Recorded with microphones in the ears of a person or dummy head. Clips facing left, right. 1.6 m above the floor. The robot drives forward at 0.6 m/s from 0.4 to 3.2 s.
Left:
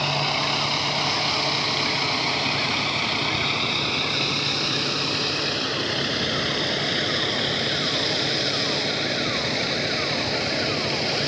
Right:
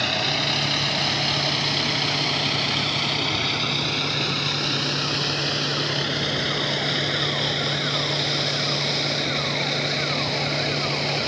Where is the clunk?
I don't hear a clunk.